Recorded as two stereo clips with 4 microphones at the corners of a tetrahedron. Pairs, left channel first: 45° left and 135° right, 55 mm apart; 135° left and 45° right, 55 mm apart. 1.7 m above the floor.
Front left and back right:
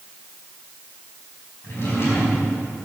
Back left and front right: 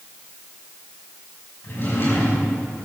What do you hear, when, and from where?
1.6 s a drawer: 85° left, 5.5 m